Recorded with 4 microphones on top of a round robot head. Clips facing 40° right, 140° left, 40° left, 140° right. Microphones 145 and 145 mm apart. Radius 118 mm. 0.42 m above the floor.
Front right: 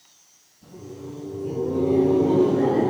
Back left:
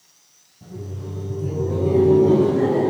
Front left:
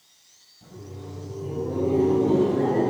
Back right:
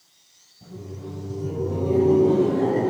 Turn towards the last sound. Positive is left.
turn(degrees=-175)